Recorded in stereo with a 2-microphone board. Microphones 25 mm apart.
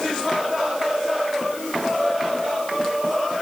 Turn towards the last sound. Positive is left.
No sound to turn to.